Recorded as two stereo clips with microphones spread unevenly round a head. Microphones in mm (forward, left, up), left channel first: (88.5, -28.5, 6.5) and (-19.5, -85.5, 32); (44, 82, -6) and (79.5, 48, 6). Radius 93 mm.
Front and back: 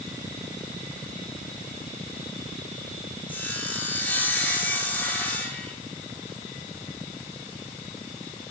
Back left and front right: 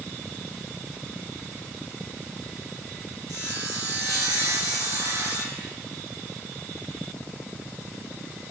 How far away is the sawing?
About 2.5 m.